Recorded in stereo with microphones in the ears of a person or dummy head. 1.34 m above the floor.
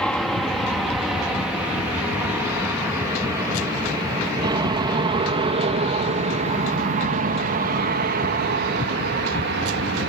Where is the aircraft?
5° left (ahead or behind); by 10.1 s 55° right (ahead or behind).